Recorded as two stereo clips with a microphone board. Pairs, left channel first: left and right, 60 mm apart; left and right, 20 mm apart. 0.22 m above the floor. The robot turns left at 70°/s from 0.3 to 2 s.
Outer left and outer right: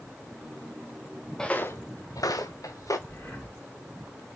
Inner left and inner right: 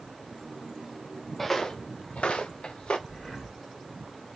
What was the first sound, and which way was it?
Footsteps, 10° left (ahead or behind).